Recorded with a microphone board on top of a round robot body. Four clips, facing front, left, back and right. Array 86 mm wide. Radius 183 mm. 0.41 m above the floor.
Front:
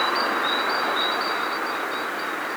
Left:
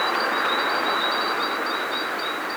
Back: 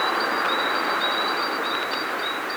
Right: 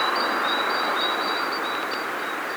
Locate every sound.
Only background noise.